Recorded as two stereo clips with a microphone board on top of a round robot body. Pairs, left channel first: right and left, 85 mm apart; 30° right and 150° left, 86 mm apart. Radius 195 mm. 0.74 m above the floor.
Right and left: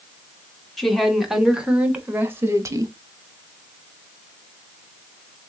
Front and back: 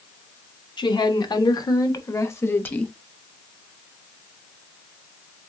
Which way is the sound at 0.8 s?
5° right.